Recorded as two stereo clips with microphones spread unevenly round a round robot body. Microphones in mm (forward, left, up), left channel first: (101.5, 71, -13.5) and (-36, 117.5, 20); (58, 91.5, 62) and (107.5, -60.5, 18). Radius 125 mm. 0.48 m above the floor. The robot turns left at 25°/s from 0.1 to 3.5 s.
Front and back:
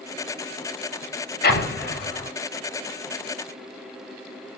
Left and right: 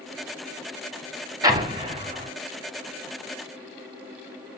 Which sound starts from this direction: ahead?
An explosion, at 1.4 s.